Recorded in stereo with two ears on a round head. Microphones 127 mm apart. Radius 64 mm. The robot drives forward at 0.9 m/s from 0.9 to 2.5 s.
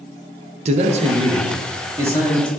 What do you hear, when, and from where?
0.7 s a man speaking: 45° right (ahead or behind), 0.5 m; by 2.5 s 15° right (ahead or behind), 1.6 m